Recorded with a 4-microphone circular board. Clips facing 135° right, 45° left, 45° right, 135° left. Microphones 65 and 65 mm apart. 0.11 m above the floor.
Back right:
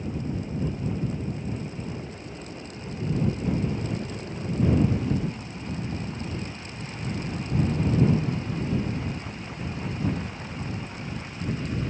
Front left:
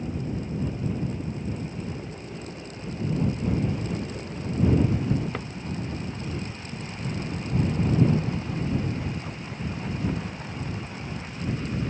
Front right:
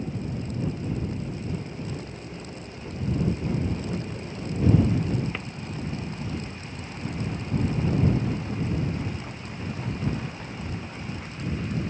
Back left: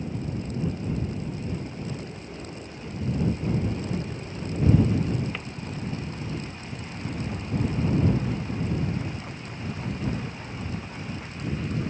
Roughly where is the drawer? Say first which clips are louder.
Front left 5 dB, front right 1 dB; ahead left.